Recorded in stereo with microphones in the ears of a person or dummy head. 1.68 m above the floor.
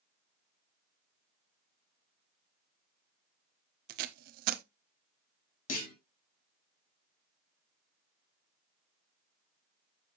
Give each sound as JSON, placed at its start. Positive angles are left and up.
{"t": 3.9, "sound": "tape being pulled", "side_deg": -55, "distance_m": 0.8}
{"t": 5.7, "sound": "a clunk", "side_deg": 50, "distance_m": 2.0}